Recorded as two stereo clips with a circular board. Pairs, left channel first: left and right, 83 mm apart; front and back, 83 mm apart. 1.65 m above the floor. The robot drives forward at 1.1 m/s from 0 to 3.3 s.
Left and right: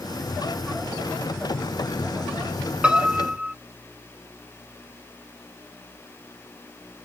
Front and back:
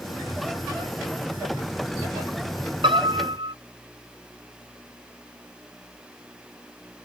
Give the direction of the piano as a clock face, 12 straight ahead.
6 o'clock.